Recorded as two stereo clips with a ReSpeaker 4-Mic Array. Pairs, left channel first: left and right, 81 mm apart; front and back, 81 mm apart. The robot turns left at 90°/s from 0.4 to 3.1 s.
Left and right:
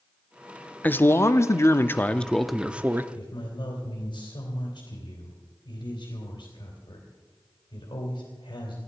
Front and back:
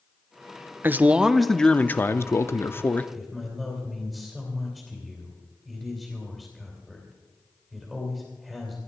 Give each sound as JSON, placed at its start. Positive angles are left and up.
{"t": 0.8, "sound": "a man speaking", "azimuth_deg": 145, "distance_m": 0.6}
{"t": 3.1, "sound": "a man speaking", "azimuth_deg": 90, "distance_m": 3.0}